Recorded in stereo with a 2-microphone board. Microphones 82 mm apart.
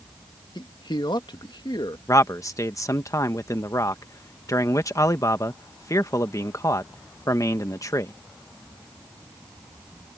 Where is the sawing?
I don't hear sawing.